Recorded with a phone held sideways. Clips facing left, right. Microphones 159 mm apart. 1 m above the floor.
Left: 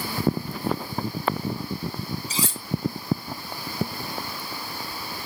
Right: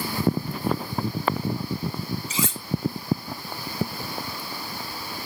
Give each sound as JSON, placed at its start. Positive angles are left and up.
{"t": 2.3, "sound": "cutlery clinking", "side_deg": 35, "distance_m": 1.4}